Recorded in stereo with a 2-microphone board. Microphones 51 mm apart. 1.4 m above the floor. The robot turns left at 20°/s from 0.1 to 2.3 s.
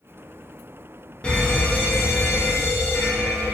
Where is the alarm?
20° left (ahead or behind), 0.7 m; by 3.5 s 45° left (ahead or behind), 0.7 m.